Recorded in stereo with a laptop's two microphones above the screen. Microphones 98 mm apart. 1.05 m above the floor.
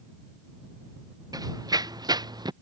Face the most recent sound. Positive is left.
turn(degrees=-45)  # may be behind; listen again after turning